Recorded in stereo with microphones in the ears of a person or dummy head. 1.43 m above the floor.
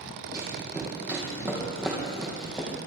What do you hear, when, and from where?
0.3 s running footsteps: 20° right (ahead or behind), 4 m; by 2.7 s 5° left (ahead or behind), 4 m